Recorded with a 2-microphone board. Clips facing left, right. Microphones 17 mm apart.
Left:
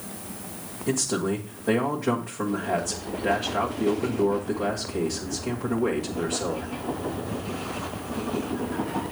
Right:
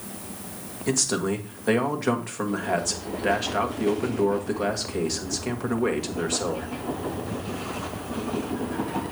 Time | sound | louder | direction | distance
0.9 | a man speaking | right 1 dB | 40° right (ahead or behind) | 1.6 m